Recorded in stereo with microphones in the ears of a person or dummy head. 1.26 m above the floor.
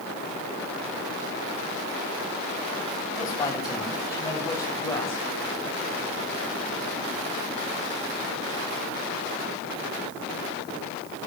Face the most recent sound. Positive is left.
turn(degrees=20)  # may be behind; listen again after turning